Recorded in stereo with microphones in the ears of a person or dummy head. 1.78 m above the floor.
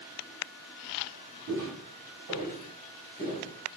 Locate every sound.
1.5 s footsteps: 30° right (ahead or behind), 2.0 m; by 3.5 s 25° right (ahead or behind), 2 m